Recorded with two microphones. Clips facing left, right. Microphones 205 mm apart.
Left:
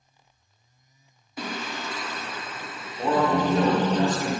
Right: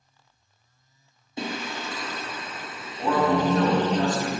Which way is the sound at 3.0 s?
20° left (ahead or behind).